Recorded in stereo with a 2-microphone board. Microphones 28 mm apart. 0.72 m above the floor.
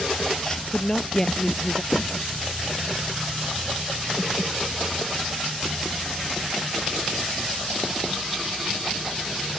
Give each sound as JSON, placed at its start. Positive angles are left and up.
{"t": 0.4, "sound": "a woman speaking", "side_deg": 15}
{"t": 1.9, "sound": "knocking", "side_deg": 40}